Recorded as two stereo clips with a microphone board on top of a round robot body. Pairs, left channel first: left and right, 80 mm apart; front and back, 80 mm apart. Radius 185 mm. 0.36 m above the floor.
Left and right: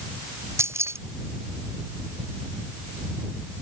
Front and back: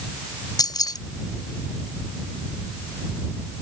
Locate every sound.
0.6 s keys jangling: 35° right